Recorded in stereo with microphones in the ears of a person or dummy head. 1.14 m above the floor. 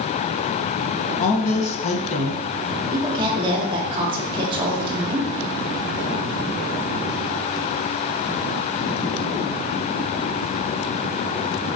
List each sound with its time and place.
1.2 s a woman speaking: 40° left (ahead or behind), 0.8 m
2.9 s a woman speaking: 35° right (ahead or behind), 0.7 m